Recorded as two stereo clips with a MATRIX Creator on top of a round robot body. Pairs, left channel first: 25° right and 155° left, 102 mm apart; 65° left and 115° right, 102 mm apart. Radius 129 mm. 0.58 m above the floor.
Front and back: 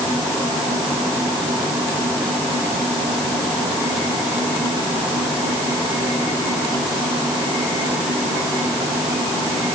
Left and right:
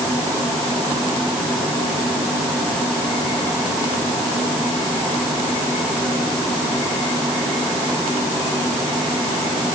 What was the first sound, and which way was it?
Only background noise.